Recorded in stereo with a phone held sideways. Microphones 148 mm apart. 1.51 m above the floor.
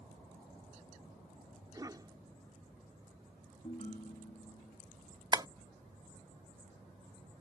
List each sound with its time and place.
1.7 s a cough: 25° right (ahead or behind)
3.6 s a ringtone: 50° left (ahead or behind)
5.3 s tapping: 30° right (ahead or behind)